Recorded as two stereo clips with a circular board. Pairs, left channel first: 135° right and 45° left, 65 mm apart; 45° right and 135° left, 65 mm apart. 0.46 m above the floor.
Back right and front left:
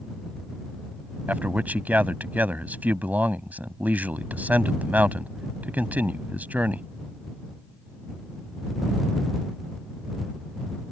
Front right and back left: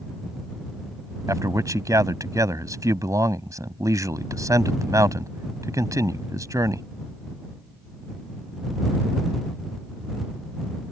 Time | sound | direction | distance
1.3 | a man speaking | 110° left | ?